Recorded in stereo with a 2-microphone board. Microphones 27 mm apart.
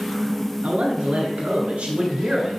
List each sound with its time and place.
0.6 s a man speaking: 65° right (ahead or behind), 3 m; by 2.6 s 45° right (ahead or behind), 2.5 m